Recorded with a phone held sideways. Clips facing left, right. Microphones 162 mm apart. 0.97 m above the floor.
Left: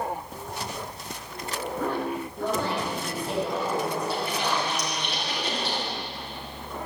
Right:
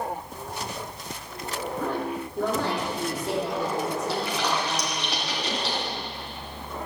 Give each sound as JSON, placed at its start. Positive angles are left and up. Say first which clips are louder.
{"t": 2.4, "sound": "a woman speaking", "louder": "right 3 dB", "side_deg": -75, "distance_m": 2.5}
{"t": 4.1, "sound": "a splash", "louder": "right 1 dB", "side_deg": -80, "distance_m": 3.0}